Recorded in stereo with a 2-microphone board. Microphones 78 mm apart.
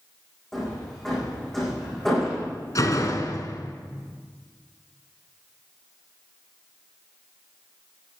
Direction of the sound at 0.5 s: 5° left (ahead or behind).